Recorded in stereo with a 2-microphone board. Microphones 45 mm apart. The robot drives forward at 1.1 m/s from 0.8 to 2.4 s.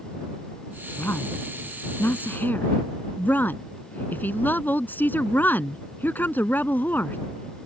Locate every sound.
1.0 s a woman speaking: 55° left (ahead or behind); by 7.2 s 45° left (ahead or behind)